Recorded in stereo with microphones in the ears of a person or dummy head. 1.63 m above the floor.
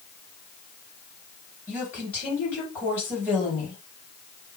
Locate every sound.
1.7 s a woman speaking: 10° left (ahead or behind), 2.5 m